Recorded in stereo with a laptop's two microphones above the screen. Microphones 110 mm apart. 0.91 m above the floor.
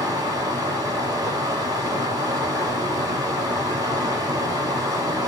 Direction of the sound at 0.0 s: 30° right (ahead or behind).